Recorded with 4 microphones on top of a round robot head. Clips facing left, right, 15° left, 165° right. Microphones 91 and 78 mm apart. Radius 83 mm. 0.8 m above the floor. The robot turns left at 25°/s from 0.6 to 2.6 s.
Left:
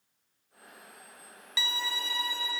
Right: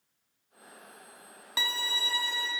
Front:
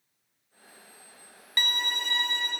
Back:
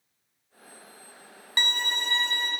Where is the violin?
115° right, 1.0 m; by 2.5 s 135° right, 1.0 m.